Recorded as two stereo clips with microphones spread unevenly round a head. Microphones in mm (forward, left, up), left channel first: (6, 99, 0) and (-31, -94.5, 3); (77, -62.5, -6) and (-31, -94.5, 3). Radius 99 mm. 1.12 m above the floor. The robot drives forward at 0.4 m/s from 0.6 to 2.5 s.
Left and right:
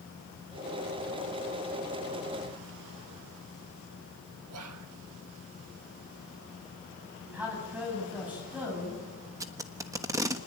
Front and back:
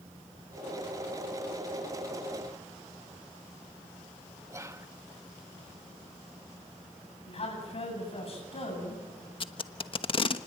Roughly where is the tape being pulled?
Ahead right.